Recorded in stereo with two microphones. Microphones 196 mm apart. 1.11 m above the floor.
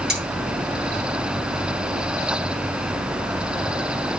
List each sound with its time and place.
0.1 s cutlery clinking: 55° right (ahead or behind), 8.5 m